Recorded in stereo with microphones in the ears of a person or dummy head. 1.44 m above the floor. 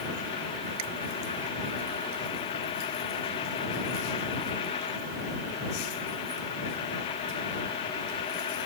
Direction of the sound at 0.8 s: 75° right (ahead or behind).